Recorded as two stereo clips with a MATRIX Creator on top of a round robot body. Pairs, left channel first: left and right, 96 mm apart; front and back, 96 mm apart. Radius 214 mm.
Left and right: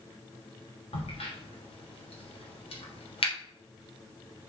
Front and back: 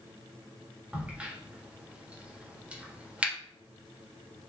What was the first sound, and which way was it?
A crack, 100° left.